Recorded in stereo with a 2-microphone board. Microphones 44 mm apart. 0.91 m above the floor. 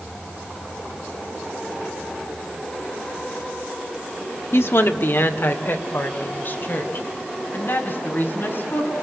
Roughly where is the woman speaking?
Left.